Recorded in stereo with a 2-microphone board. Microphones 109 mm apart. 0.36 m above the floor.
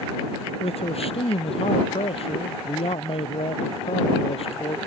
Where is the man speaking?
65° left (ahead or behind).